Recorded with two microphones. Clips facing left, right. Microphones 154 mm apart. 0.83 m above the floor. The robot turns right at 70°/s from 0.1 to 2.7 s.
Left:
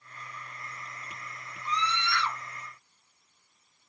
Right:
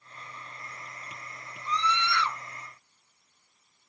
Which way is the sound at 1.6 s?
70° left.